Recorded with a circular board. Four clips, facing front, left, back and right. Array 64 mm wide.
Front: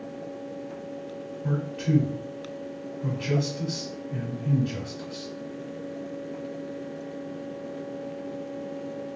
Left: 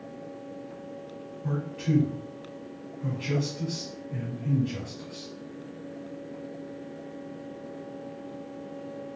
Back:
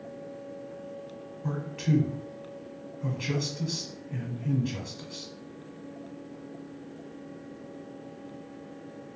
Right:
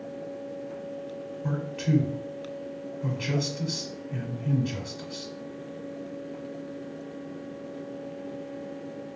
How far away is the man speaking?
About 1.2 m.